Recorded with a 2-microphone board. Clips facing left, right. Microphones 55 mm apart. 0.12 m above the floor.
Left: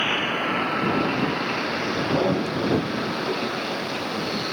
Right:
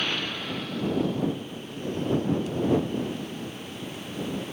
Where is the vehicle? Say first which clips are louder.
Left 7 dB; 30° left (ahead or behind); by 4.5 s 75° left (ahead or behind).